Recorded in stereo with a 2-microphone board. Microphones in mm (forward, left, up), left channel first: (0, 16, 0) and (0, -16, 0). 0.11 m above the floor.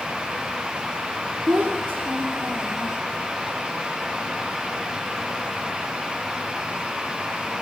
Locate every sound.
1.5 s a child speaking: 75° right (ahead or behind), 4.5 m